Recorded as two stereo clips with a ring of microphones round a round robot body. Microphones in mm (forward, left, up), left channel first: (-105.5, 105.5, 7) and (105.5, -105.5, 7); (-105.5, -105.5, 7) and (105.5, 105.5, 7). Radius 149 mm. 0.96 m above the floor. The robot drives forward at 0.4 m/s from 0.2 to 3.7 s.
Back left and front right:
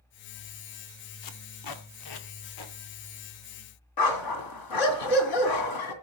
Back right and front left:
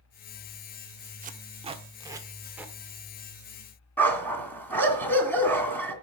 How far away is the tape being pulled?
About 1.2 m.